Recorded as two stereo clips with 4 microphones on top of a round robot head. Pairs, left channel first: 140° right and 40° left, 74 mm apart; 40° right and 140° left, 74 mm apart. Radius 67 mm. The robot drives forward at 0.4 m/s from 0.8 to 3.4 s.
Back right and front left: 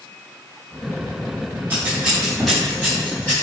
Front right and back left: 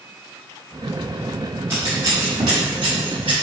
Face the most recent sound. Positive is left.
turn(degrees=145)